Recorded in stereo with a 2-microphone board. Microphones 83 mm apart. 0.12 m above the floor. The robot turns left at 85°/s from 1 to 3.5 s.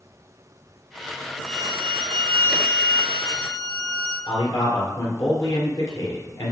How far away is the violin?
About 2.5 m.